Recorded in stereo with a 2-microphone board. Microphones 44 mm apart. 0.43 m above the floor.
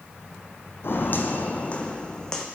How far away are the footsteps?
About 1.0 m.